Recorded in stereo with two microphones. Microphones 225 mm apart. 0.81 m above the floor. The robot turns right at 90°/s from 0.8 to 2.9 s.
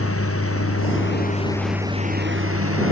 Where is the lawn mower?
80° left; by 2.9 s 70° right (ahead or behind).